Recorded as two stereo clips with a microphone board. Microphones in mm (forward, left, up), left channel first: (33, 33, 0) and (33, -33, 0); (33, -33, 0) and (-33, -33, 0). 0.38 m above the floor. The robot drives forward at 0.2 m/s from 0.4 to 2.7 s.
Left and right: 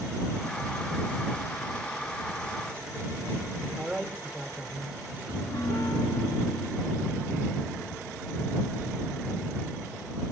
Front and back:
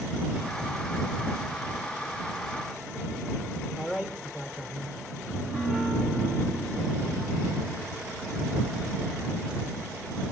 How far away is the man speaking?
About 1.0 m.